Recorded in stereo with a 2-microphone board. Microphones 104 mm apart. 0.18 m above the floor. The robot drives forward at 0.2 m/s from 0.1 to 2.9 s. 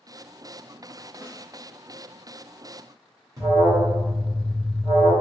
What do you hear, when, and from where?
1.2 s a snare drum: 60° right (ahead or behind), 1.7 m
3.4 s an alarm: 40° right (ahead or behind), 1.5 m